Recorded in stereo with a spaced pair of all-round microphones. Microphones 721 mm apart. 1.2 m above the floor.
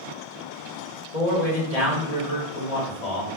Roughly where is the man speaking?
Left.